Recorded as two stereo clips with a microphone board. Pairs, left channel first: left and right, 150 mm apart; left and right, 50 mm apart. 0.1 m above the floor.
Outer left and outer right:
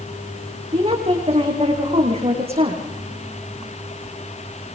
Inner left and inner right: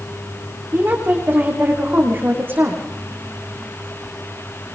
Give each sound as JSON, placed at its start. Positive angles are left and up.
{"t": 0.7, "sound": "a woman speaking", "side_deg": -40, "distance_m": 7.5}